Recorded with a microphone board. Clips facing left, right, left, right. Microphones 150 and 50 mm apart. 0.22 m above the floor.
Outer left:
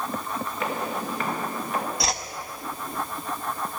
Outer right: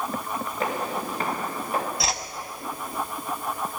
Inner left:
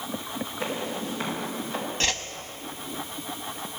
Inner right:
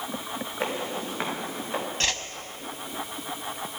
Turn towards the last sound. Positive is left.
turn(degrees=0)  # may be behind; listen again after turning